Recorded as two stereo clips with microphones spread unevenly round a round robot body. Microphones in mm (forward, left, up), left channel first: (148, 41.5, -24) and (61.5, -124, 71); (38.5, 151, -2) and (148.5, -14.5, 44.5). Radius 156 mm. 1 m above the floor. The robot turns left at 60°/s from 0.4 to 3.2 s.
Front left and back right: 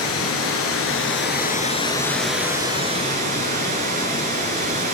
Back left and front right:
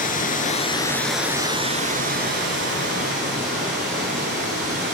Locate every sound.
0.0 s running water: 70° left, 2 m; by 4.9 s 95° right, 2 m